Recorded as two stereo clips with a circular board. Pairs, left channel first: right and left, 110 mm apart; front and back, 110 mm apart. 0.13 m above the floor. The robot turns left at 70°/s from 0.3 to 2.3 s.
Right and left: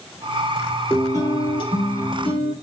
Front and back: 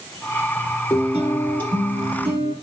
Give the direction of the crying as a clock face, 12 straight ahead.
I don't hear crying.